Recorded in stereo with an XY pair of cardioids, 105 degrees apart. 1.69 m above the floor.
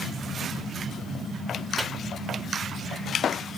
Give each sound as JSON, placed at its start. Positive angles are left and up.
{"t": 1.8, "sound": "a microwave", "azimuth_deg": -20, "distance_m": 1.3}